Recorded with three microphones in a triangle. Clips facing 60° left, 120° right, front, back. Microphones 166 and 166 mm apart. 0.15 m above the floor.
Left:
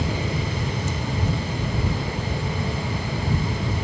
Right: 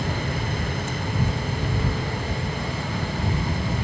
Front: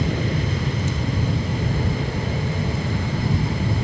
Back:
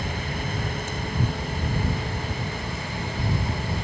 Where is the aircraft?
20° right; by 3.8 s 25° right.